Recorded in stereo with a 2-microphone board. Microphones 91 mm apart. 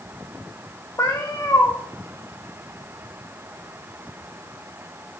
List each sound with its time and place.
1.0 s a cat meowing: 35° left (ahead or behind), 2 m